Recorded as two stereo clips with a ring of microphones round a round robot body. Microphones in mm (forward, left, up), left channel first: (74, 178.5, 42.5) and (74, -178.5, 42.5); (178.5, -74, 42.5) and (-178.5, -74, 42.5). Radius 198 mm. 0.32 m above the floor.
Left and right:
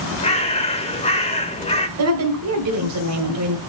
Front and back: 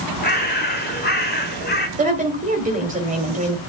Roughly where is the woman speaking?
Behind right.